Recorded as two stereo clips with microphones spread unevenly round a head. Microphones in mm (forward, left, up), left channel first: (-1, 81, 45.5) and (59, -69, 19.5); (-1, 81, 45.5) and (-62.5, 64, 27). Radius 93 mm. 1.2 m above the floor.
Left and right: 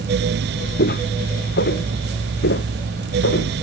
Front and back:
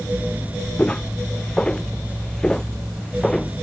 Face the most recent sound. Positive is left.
turn(degrees=95)